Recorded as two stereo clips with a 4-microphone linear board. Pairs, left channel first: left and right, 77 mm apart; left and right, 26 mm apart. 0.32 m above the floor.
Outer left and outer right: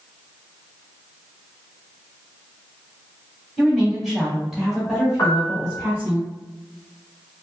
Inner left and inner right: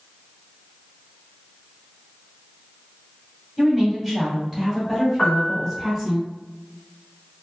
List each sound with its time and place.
3.6 s a woman speaking: centre (ahead or behind), 1.7 m; by 6.2 s 15° right (ahead or behind), 1.6 m
5.2 s a piano: 55° left (ahead or behind), 1.6 m